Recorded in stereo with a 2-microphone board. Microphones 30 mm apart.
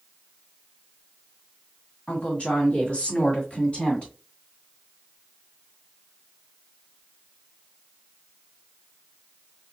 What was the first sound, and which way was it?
A woman speaking, 45° left (ahead or behind).